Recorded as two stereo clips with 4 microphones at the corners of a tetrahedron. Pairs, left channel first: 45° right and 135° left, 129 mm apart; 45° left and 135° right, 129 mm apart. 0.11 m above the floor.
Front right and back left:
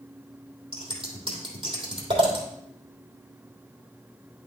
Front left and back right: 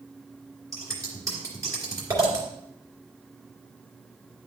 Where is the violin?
No violin in this recording.